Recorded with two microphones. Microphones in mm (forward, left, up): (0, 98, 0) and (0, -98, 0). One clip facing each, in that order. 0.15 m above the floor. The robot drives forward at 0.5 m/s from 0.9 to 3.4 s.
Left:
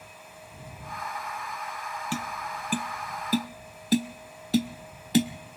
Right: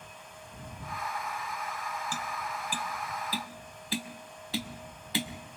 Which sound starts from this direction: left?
Tapping, at 2.1 s.